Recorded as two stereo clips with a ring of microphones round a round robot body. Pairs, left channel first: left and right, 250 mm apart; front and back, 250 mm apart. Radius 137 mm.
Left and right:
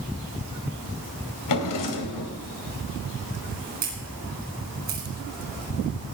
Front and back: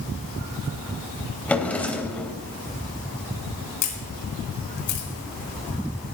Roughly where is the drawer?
Left.